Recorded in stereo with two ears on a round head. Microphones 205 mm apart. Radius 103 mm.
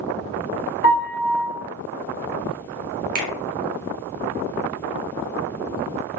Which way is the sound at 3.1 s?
35° right (ahead or behind).